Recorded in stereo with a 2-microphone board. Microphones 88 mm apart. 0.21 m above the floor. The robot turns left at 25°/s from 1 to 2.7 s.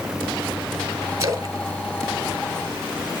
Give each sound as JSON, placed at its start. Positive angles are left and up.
{"t": 1.2, "sound": "a splash", "side_deg": -35, "distance_m": 0.9}